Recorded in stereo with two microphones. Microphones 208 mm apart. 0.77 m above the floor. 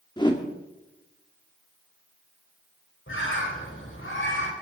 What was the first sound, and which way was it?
A whoosh, 20° left (ahead or behind).